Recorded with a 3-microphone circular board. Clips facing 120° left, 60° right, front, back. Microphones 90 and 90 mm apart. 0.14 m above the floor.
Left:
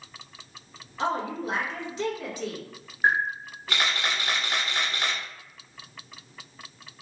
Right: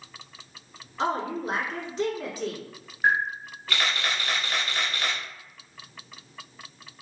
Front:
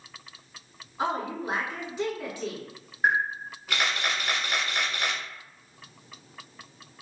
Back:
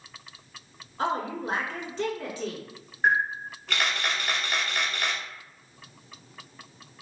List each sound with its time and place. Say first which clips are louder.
1.0 s a woman speaking: right 1 dB, back 1 dB; 70° right, 1.5 m
3.0 s a camera shutter: even, back 1 dB; 75° left, 0.9 m